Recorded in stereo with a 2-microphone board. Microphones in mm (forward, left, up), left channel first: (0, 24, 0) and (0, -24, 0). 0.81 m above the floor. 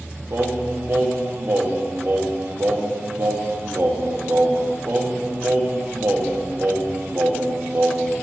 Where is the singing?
55° right (ahead or behind), 0.8 m.